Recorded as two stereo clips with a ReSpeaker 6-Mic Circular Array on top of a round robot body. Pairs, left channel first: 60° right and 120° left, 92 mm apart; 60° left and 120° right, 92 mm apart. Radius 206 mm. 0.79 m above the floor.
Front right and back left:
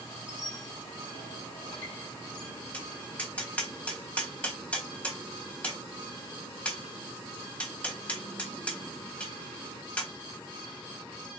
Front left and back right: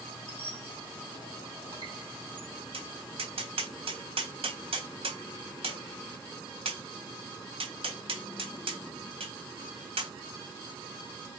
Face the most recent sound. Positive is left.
turn(degrees=-140)